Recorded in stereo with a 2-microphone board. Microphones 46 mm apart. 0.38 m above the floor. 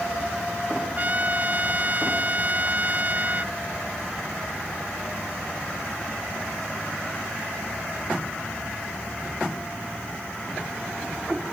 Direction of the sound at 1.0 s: 35° right (ahead or behind).